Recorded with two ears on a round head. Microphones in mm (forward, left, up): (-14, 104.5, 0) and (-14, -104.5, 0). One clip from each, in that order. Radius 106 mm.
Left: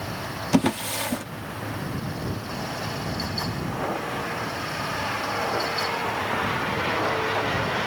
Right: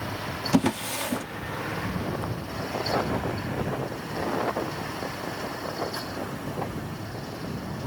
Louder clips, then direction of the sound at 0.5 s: Left 2 dB; 5° left (ahead or behind).